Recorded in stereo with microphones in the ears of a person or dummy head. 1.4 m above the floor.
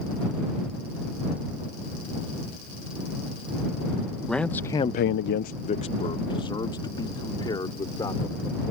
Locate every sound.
4.3 s a man speaking: 5° left (ahead or behind); by 8.7 s 20° left (ahead or behind)